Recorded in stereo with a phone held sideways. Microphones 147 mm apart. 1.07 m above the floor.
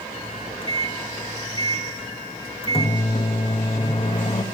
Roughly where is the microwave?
Left.